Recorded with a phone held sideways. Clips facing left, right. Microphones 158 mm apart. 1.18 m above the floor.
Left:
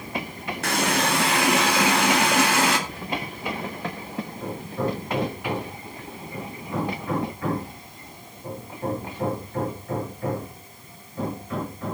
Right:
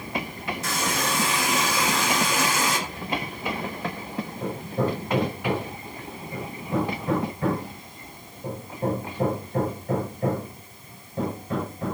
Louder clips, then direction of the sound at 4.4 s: Right 2 dB; 30° right (ahead or behind).